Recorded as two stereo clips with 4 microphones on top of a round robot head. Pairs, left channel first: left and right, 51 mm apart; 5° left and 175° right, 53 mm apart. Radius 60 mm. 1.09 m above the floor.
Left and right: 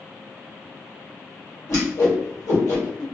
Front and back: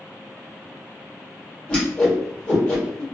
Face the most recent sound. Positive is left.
turn(degrees=65)